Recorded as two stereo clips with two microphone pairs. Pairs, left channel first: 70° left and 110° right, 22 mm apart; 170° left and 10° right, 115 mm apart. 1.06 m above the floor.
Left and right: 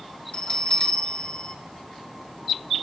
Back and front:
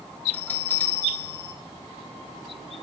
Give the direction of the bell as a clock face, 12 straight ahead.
9 o'clock.